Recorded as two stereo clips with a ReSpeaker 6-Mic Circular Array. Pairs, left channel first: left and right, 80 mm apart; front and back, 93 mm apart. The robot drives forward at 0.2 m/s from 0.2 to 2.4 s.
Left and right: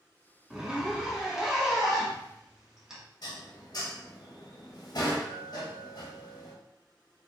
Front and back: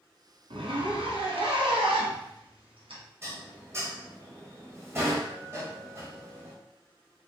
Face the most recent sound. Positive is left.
turn(degrees=120)